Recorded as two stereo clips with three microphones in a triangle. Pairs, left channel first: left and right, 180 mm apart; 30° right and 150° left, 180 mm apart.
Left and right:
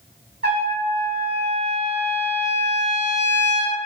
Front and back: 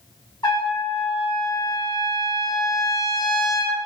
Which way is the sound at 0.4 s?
95° right.